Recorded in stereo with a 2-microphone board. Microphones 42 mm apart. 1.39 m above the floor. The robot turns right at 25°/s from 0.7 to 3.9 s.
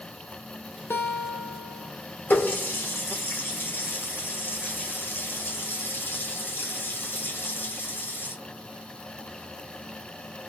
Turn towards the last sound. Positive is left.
turn(degrees=60)  # may be behind; listen again after turning